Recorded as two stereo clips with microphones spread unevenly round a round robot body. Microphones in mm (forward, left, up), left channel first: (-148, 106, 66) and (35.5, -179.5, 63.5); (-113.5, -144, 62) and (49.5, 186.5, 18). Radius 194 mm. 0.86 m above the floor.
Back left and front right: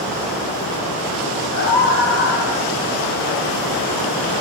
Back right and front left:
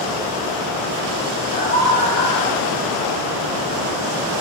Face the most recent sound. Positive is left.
turn(degrees=165)